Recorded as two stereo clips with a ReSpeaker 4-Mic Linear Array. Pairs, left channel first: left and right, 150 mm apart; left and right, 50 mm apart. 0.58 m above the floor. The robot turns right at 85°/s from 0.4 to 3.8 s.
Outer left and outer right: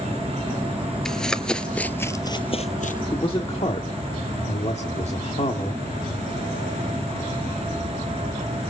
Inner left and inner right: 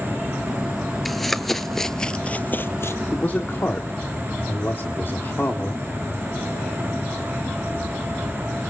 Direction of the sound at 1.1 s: 5° left (ahead or behind).